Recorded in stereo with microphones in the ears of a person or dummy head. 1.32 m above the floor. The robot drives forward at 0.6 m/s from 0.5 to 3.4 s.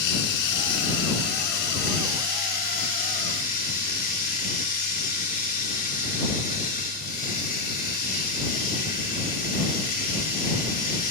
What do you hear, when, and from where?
0.0 s running water: 60° left (ahead or behind), 2.5 m; by 11.1 s 45° left (ahead or behind), 3.5 m